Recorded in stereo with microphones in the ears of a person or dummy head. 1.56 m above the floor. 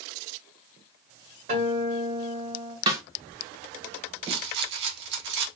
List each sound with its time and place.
1.5 s a guitar: 50° right (ahead or behind), 2 m
2.9 s a snare drum: 30° right (ahead or behind), 0.8 m
4.2 s a rattle: 70° right (ahead or behind), 1.0 m